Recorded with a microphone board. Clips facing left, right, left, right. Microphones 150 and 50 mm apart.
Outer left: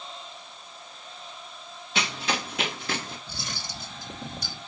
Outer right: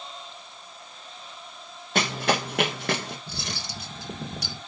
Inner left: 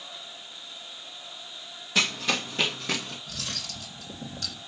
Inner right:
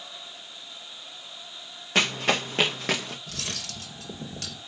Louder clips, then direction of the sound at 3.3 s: Outer right 2 dB, inner right 1 dB; 80° right.